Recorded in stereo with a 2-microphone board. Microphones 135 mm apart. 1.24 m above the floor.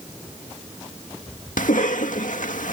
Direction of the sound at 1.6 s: 80° left.